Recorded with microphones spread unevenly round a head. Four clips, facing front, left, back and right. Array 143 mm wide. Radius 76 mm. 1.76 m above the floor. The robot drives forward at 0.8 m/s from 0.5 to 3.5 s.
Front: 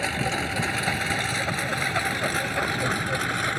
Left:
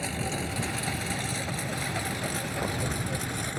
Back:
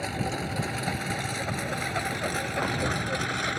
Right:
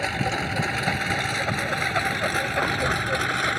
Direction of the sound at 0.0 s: 45° right.